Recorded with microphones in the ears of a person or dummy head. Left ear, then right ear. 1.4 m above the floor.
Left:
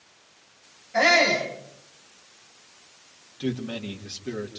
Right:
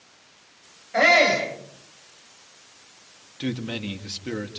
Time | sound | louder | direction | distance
0.9 | a shout | right 2 dB | 25° right (ahead or behind) | 8 m
3.4 | a man speaking | right 1 dB | 25° right (ahead or behind) | 2.5 m